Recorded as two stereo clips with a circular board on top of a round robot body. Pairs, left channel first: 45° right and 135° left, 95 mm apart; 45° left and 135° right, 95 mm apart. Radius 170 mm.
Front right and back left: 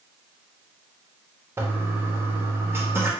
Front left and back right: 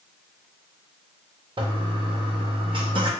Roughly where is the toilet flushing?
Behind.